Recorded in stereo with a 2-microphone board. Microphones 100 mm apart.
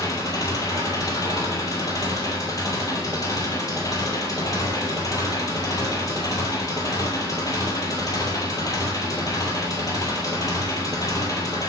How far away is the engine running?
About 1.6 m.